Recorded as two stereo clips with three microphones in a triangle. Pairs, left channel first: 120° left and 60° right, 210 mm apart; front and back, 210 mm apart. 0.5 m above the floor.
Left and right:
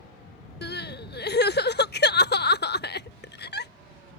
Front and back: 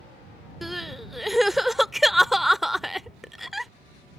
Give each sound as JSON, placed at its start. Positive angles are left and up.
{"t": 0.6, "sound": "crying", "azimuth_deg": 90}